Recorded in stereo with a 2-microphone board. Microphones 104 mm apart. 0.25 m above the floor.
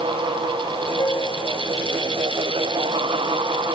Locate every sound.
1.0 s a piano: 35° left (ahead or behind)